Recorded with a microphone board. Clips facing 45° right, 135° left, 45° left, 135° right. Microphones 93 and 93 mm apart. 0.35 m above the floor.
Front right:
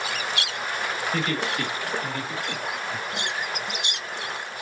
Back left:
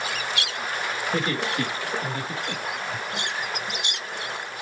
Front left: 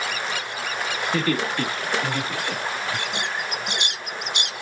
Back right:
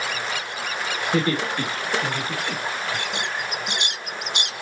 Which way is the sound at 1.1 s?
Straight behind.